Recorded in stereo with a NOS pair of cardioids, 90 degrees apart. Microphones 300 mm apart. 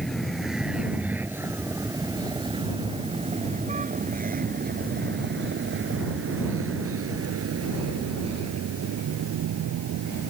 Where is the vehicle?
Straight ahead; by 10.3 s 65° right.